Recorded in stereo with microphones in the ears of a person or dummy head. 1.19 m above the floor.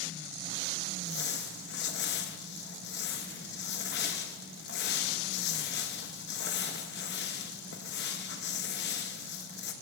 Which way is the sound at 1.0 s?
55° left (ahead or behind).